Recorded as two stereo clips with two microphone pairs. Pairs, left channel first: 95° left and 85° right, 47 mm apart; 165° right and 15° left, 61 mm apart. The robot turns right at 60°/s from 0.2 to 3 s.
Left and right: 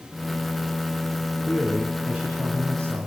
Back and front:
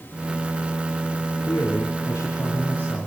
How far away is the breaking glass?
I don't hear breaking glass.